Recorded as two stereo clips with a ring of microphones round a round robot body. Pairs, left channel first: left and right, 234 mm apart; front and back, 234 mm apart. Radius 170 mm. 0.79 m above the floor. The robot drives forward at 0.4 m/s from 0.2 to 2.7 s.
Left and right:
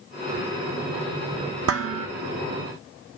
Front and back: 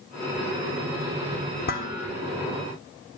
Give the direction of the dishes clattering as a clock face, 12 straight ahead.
2 o'clock.